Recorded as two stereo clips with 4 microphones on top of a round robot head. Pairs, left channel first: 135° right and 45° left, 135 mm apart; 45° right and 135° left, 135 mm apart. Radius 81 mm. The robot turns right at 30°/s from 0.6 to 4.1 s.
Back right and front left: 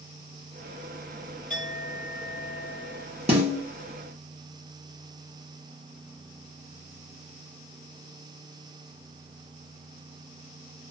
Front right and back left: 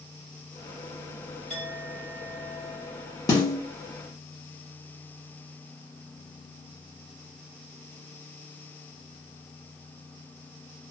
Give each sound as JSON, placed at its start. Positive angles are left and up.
{"t": 1.5, "sound": "a clink", "azimuth_deg": 110, "distance_m": 1.1}
{"t": 3.3, "sound": "a snare drum", "azimuth_deg": 10, "distance_m": 0.8}